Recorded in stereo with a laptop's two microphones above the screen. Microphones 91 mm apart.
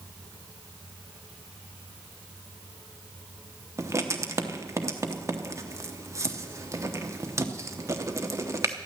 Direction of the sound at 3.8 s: 35° right (ahead or behind).